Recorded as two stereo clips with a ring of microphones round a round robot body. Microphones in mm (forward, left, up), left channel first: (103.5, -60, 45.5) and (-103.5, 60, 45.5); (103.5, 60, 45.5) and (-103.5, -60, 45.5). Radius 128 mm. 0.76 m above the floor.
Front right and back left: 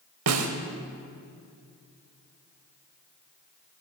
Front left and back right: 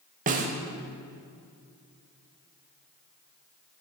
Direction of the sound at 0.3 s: 155° left.